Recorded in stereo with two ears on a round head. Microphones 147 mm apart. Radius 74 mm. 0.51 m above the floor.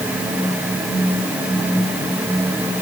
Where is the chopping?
I don't hear chopping.